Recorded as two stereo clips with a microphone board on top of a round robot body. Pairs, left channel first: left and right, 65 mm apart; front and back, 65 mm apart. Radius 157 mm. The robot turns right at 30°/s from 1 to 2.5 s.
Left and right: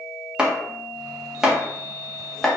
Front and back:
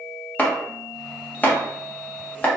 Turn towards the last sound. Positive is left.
turn(degrees=15)